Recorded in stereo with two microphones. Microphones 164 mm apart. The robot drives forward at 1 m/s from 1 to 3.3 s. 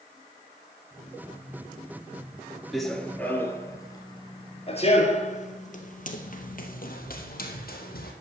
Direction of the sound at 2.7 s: Centre (ahead or behind).